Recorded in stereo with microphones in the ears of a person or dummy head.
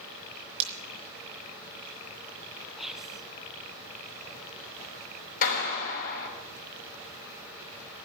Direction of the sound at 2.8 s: 5° right (ahead or behind).